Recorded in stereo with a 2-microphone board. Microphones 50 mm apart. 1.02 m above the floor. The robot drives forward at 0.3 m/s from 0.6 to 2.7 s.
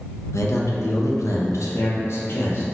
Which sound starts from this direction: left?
A man speaking, at 0.3 s.